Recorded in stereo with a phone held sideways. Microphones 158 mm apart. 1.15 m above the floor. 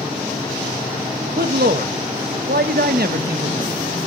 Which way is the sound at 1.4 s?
85° right.